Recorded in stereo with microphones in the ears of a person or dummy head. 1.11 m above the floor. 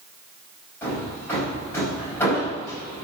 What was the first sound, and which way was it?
Hammering, 15° left (ahead or behind).